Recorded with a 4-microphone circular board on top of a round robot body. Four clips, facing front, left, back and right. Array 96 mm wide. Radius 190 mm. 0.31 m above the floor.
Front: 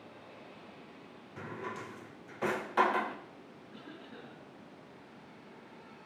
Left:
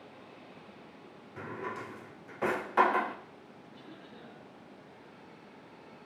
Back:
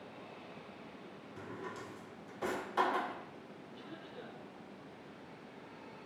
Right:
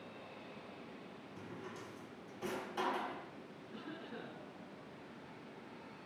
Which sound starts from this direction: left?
A drawer, at 1.4 s.